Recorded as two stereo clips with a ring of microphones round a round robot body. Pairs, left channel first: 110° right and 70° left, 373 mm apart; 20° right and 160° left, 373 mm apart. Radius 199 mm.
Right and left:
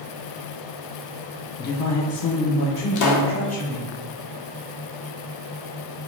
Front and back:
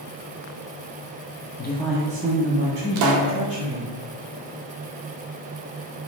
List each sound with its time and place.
1.6 s a woman speaking: 55° right, 0.6 m; by 3.9 s 160° right, 2.5 m
3.0 s a pop: 160° right, 0.6 m